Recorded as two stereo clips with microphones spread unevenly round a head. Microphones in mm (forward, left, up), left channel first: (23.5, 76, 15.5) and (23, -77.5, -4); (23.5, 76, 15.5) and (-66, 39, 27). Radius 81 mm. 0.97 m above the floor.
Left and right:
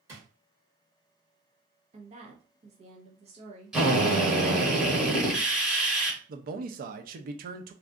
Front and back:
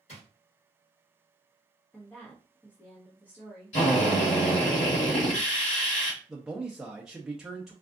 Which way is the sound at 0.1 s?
15° right.